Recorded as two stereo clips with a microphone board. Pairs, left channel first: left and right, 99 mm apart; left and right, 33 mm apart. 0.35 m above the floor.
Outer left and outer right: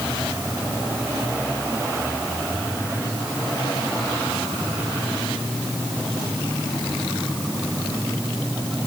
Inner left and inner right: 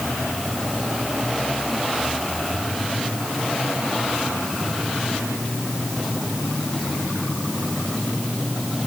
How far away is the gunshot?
No gunshot in this recording.